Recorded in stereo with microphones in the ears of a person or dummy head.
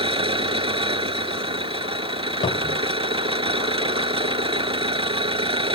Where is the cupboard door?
35° left (ahead or behind).